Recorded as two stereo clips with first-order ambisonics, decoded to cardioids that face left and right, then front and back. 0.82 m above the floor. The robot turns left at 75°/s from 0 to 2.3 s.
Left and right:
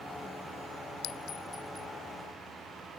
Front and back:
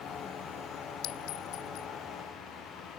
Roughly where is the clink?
Ahead left.